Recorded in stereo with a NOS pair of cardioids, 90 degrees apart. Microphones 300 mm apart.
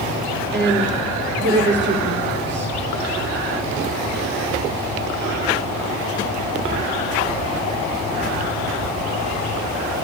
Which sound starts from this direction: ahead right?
A woman speaking, at 0.5 s.